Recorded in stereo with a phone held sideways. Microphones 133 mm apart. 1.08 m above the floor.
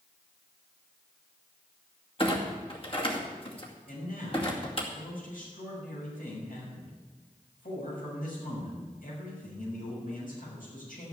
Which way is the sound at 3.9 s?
80° left.